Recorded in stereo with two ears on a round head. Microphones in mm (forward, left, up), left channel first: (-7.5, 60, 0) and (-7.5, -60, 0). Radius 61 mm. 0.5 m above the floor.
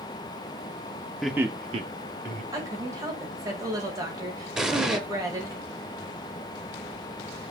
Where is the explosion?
5° right (ahead or behind), 0.5 m.